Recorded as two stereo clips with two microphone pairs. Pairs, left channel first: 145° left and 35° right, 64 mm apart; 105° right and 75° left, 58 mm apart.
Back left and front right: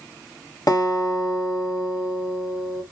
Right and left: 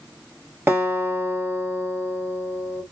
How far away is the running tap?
No running tap in this recording.